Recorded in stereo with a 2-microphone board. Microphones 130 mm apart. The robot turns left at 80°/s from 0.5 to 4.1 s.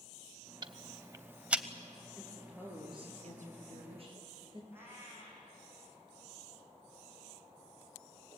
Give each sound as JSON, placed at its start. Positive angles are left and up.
{"t": 0.6, "sound": "ticking", "side_deg": -35, "distance_m": 0.7}
{"t": 2.2, "sound": "a woman speaking", "azimuth_deg": 20, "distance_m": 5.5}
{"t": 4.7, "sound": "a cat meowing", "side_deg": -15, "distance_m": 5.0}